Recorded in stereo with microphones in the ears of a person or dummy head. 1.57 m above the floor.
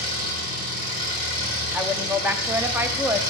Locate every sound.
0.0 s an engine running: 50° right (ahead or behind), 2.5 m
1.7 s a woman speaking: 5° right (ahead or behind), 0.5 m